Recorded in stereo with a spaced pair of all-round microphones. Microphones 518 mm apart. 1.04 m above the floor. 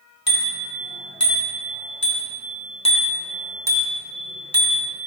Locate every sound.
0.3 s a bicycle bell: 40° left (ahead or behind), 4.5 m; by 5.0 s 40° right (ahead or behind), 2.5 m